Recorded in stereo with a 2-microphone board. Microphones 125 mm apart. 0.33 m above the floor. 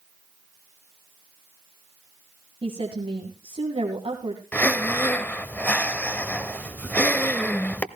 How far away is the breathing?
About 0.6 m.